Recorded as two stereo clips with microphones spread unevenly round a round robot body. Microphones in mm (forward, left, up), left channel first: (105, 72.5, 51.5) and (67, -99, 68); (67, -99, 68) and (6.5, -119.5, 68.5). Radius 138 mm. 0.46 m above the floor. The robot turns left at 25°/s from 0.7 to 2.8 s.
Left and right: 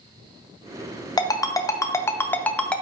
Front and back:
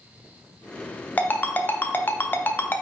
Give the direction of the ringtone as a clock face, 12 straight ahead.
10 o'clock.